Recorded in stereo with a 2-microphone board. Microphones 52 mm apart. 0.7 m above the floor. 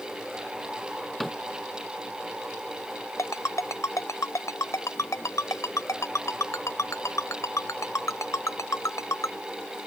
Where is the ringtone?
80° left.